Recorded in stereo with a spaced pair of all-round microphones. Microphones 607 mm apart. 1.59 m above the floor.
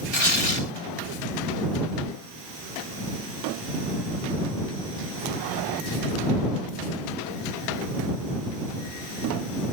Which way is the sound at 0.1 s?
80° left.